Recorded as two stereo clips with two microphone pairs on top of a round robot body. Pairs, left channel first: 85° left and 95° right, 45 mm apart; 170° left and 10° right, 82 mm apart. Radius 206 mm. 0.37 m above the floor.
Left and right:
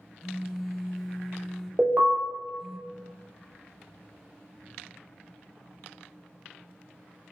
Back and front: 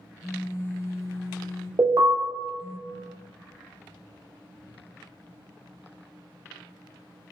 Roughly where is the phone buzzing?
Behind.